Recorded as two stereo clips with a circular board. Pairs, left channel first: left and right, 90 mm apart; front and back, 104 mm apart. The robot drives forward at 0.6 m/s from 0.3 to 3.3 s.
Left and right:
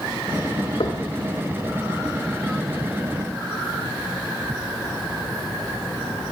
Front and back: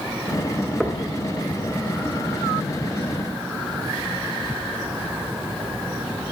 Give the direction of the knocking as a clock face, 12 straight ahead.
9 o'clock.